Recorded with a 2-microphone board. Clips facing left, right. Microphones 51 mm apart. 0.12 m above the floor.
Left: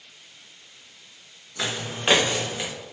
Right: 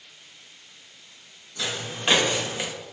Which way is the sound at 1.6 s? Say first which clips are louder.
Left 1 dB; 35° left (ahead or behind).